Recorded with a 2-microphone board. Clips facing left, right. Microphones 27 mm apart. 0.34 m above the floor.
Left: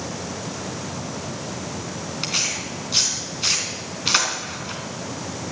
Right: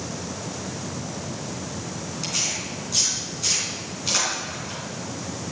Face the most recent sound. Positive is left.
turn(degrees=45)  # may be behind; listen again after turning